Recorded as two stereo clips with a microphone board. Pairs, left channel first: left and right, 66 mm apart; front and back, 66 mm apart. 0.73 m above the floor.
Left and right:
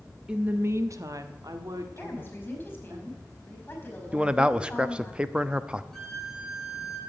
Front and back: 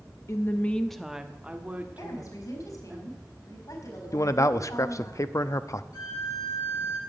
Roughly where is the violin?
Ahead.